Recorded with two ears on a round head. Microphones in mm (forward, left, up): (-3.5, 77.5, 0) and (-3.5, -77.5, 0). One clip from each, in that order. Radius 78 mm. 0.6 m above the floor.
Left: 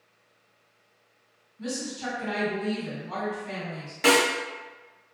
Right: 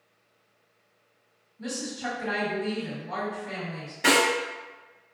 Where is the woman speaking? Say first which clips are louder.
Even; 30° left (ahead or behind), 1.7 m.